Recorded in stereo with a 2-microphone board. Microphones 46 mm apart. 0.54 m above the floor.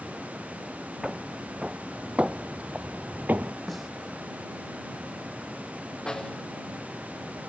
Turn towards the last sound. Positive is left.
turn(degrees=15)  # may be behind; listen again after turning